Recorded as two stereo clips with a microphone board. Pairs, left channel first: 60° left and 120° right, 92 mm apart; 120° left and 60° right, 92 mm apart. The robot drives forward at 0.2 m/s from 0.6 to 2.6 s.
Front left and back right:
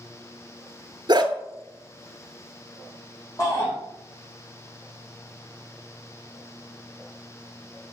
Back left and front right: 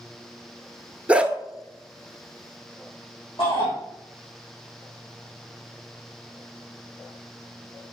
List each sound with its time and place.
1.1 s a dog barking: 135° right, 0.7 m
3.4 s a shout: 110° left, 4 m